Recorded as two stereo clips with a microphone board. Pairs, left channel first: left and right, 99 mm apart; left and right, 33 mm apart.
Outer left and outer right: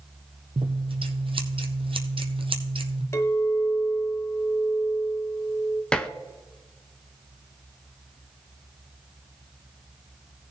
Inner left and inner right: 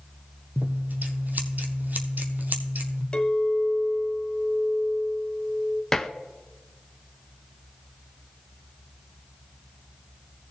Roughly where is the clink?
Left.